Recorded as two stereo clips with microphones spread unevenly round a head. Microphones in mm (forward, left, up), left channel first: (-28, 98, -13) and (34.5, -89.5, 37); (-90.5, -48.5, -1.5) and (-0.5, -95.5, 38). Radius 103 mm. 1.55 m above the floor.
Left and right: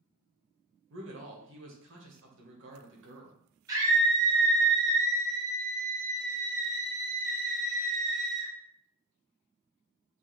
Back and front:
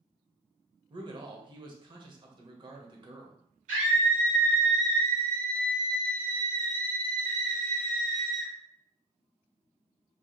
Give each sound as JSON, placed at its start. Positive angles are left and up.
{"t": 0.9, "sound": "a man speaking", "azimuth_deg": -55, "distance_m": 1.2}
{"t": 3.7, "sound": "a scream", "azimuth_deg": 0, "distance_m": 1.8}